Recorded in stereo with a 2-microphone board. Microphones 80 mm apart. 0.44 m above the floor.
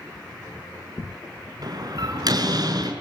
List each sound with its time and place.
1.6 s a door slam: 55° right (ahead or behind), 5.5 m